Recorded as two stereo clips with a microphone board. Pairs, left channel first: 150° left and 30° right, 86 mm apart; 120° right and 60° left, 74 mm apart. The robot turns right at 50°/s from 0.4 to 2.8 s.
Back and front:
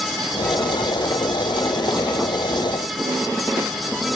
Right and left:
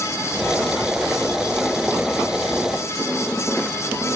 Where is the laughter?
I don't hear laughter.